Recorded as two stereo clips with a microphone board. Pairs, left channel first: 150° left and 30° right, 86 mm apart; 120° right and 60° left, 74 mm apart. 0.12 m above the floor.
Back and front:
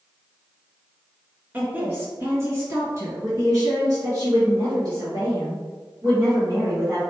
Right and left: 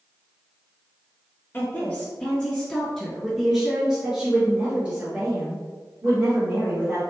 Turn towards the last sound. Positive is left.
turn(degrees=5)